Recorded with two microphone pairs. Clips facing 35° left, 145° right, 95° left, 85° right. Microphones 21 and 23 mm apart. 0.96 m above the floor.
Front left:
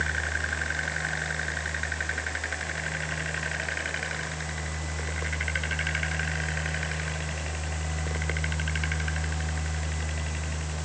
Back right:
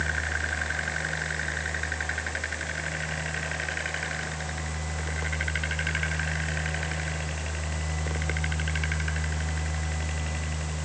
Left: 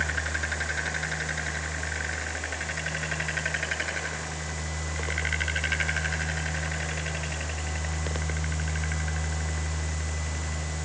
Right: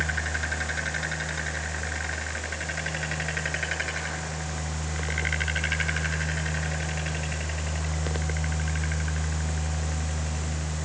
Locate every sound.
Only background noise.